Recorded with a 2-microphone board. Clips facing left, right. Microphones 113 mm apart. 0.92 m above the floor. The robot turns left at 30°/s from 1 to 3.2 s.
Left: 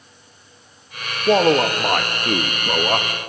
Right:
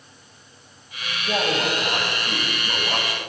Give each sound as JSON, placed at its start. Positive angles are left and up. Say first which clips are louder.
{"t": 1.3, "sound": "a man speaking", "louder": "left 9 dB", "azimuth_deg": 100, "distance_m": 0.8}